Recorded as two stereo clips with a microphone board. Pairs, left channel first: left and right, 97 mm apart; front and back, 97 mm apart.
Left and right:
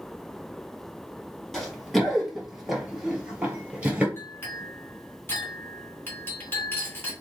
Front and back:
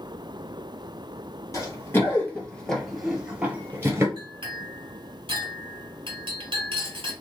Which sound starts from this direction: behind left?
A clink, at 4.2 s.